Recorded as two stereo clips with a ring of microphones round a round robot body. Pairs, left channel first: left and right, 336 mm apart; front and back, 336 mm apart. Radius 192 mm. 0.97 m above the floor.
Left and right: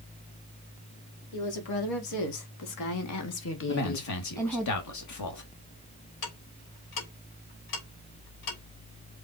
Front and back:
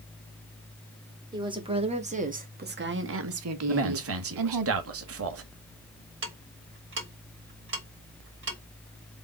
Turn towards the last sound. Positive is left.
turn(degrees=125)